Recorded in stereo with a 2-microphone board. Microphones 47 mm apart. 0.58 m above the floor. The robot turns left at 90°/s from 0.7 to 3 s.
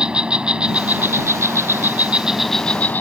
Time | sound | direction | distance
0.0 | an insect | 20° right | ?